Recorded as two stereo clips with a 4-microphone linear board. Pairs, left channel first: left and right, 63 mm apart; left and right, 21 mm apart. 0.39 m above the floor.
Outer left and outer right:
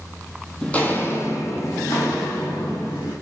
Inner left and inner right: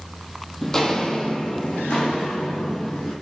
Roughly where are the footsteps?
Centre.